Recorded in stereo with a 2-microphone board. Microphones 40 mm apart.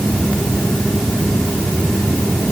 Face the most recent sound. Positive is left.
No sound to turn to.